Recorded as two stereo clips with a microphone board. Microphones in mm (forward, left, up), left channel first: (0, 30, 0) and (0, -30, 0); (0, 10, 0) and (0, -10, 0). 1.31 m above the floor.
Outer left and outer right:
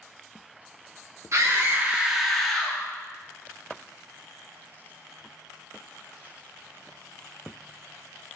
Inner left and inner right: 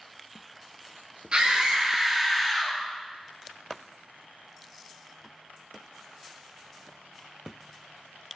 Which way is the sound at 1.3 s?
55° right (ahead or behind).